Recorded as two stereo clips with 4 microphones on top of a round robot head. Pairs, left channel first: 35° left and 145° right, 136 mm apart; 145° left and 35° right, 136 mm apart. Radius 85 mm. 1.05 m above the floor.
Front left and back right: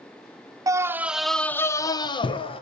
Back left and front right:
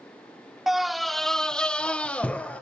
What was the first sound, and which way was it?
A scream, 120° right.